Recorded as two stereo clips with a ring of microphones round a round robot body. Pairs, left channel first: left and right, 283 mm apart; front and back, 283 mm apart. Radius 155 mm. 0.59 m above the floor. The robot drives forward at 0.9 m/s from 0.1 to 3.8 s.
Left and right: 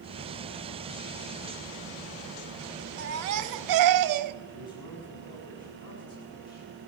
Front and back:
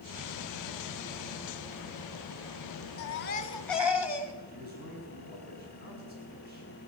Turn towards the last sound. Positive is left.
turn(degrees=125)